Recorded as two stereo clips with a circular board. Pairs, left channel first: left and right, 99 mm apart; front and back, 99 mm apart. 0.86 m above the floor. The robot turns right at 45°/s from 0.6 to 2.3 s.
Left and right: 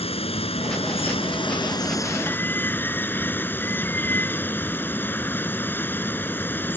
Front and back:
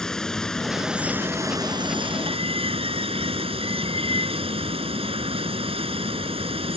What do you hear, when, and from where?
0.0 s running water: 85° left; by 6.8 s 160° left